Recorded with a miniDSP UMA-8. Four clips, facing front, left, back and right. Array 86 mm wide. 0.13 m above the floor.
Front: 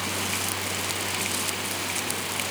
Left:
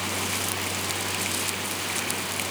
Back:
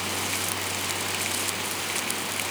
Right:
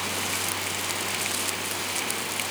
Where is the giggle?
I don't hear a giggle.